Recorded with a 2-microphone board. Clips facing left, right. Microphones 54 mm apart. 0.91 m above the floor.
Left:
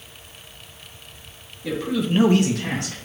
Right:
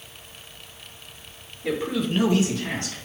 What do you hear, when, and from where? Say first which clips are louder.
1.6 s a man speaking: left 1 dB; 25° right (ahead or behind), 1.1 m; by 3.0 s 65° left (ahead or behind), 1.3 m